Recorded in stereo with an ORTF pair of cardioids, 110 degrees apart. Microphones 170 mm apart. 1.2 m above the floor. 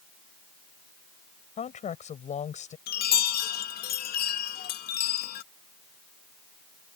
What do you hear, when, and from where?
1.6 s a woman speaking: 45° left
2.9 s a chime: 70° left